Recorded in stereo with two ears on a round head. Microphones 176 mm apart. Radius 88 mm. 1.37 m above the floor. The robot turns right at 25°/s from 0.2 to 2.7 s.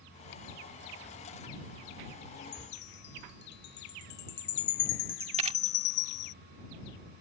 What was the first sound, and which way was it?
A chime, 55° left (ahead or behind).